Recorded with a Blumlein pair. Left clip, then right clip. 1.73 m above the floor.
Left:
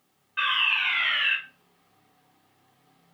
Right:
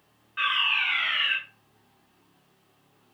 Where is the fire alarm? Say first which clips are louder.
Left 1 dB; 5° left, 3 m.